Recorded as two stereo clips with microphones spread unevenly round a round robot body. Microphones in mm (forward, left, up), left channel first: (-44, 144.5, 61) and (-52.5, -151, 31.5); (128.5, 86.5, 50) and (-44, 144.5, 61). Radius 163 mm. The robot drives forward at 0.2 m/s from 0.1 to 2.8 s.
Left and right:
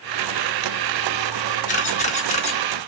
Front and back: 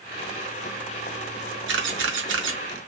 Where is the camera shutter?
150° left, 0.9 m; by 2.6 s 155° left, 1.0 m.